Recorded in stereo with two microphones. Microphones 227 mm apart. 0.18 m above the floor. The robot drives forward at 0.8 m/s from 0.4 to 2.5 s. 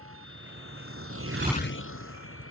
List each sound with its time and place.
0.0 s a vehicle: 75° right (ahead or behind); by 2.5 s 70° left (ahead or behind)